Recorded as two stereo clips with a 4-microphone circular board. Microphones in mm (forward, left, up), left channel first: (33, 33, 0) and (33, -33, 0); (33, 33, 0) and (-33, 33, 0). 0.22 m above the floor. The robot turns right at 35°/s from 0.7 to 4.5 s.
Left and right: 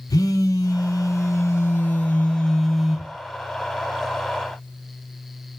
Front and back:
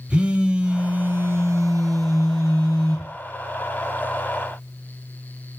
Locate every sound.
0.1 s a phone buzzing: 105° left, 0.6 m; by 3.1 s 170° right, 0.6 m